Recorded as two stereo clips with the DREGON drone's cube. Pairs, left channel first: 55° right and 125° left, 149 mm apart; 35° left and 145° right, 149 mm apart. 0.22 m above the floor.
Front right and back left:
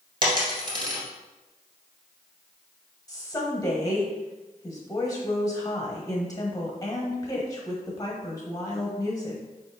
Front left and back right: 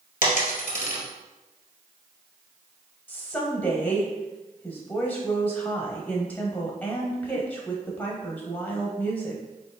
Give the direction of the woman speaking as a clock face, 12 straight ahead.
1 o'clock.